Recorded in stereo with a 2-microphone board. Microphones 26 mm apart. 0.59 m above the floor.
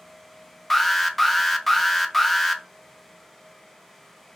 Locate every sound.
0.7 s an alarm: 5° left (ahead or behind), 0.6 m